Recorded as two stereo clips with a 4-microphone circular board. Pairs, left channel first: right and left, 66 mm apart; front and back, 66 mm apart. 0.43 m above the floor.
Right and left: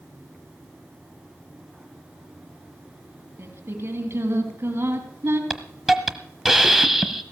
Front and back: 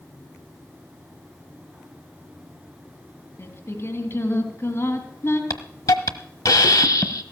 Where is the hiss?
5° left, 0.9 m.